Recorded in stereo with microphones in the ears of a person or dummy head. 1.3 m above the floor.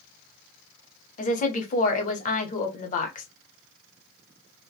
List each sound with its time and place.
1.2 s a woman speaking: 45° left (ahead or behind), 0.7 m